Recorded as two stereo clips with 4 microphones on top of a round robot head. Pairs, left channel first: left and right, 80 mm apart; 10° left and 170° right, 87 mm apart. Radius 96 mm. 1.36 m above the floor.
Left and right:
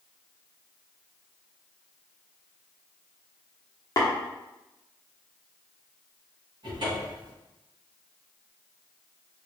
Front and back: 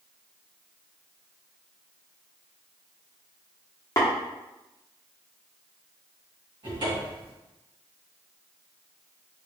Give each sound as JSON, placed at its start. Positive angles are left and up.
{"t": 4.0, "sound": "tapping", "azimuth_deg": 55, "distance_m": 1.2}
{"t": 6.6, "sound": "a cupboard door", "azimuth_deg": -130, "distance_m": 2.0}